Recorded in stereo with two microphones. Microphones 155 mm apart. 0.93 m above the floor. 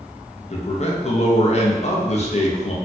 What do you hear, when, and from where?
0.5 s a man speaking: 45° left (ahead or behind), 0.5 m